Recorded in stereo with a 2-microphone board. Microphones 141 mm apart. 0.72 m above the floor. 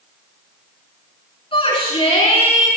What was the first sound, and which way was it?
A shout, 40° left (ahead or behind).